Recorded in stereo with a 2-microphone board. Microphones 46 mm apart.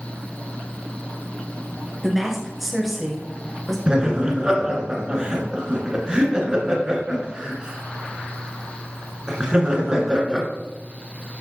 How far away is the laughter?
About 1.4 m.